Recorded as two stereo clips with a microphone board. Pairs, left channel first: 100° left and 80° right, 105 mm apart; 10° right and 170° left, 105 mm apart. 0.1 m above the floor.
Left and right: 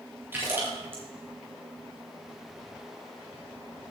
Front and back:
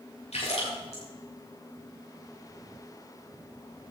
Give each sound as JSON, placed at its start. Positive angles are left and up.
{"t": 0.3, "sound": "a splash", "azimuth_deg": -10, "distance_m": 8.0}